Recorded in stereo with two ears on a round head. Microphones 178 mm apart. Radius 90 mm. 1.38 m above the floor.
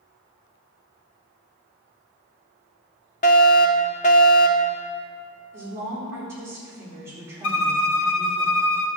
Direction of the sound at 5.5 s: 10° right (ahead or behind).